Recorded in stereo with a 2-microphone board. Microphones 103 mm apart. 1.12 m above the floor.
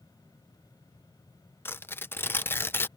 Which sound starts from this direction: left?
Tearing paper, at 1.6 s.